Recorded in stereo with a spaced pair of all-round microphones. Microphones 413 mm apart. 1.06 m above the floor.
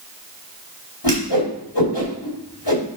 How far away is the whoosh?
About 3 m.